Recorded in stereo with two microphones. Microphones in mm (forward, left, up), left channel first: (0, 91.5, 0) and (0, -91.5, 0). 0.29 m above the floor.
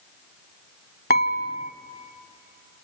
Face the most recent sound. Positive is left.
turn(degrees=60)  # may be behind; listen again after turning